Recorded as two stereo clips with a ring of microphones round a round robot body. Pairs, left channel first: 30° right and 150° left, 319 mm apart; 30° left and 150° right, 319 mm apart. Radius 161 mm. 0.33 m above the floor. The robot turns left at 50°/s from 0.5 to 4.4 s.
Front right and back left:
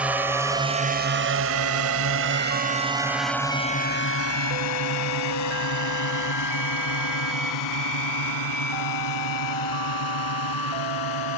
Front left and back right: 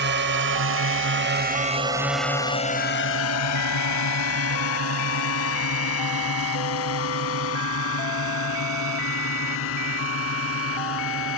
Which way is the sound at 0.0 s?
125° right.